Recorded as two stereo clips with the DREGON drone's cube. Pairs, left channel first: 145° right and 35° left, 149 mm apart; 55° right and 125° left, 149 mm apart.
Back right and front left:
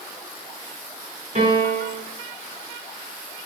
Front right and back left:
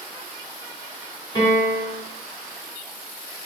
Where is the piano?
5° left, 1.7 m.